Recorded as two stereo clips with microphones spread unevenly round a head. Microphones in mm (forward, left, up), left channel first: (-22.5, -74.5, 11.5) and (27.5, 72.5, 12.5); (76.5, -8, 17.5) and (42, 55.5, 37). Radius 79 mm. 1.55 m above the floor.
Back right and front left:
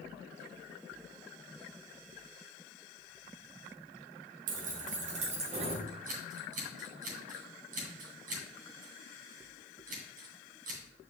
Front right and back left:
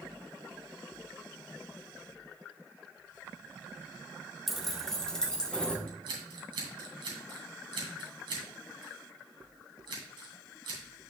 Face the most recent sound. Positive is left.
turn(degrees=110)